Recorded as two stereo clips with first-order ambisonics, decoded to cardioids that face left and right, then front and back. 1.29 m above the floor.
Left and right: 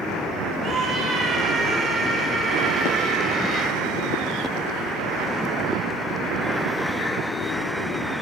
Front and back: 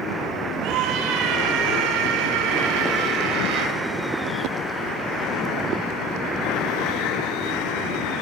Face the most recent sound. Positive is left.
turn(degrees=-165)